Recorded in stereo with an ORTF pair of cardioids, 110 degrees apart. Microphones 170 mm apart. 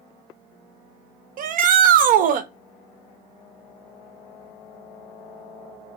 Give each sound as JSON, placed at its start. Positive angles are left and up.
{"t": 1.4, "sound": "a shout", "azimuth_deg": -60, "distance_m": 1.0}